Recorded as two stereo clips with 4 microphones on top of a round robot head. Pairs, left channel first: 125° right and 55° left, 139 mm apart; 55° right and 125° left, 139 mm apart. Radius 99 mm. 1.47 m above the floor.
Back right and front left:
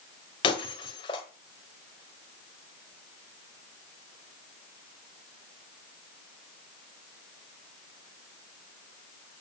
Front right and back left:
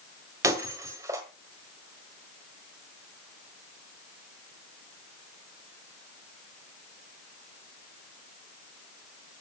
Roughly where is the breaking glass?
Behind.